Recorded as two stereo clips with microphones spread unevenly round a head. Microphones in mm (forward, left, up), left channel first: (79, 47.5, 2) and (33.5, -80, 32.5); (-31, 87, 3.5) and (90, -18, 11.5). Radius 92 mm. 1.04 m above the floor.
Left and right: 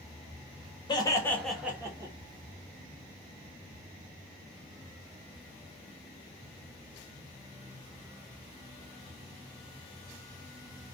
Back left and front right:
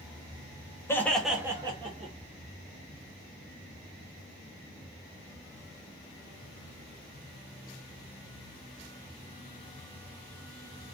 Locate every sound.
0.9 s laughter: 75° left, 1.0 m; by 2.1 s 50° right, 1.0 m